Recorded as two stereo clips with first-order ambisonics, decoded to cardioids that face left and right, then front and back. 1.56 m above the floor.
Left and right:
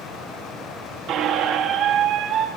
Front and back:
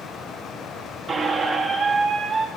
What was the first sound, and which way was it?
A squeak, 115° right.